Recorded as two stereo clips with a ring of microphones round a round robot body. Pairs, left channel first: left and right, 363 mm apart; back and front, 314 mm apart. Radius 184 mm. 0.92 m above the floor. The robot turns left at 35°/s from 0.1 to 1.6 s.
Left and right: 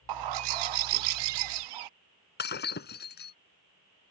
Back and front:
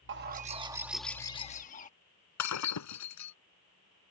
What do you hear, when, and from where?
0.1 s a bird: 60° right; by 1.9 s 110° right
2.4 s breaking glass: 150° left